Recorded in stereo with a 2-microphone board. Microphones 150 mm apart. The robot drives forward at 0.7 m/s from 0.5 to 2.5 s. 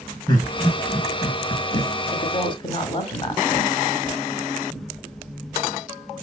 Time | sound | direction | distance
0.3 | laughter | 30° left (ahead or behind) | 1.8 m
2.1 | a woman speaking | 35° left (ahead or behind) | 1.4 m